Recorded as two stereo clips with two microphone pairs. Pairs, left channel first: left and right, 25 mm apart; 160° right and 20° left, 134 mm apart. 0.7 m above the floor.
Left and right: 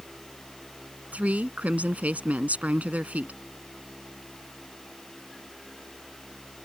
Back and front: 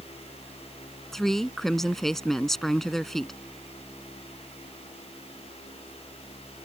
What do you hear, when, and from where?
1.1 s a woman speaking: 70° right